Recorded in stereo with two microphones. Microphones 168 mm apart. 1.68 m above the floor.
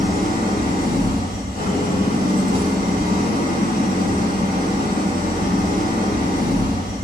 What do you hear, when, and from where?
0.0 s an engine running: 85° left, 4.5 m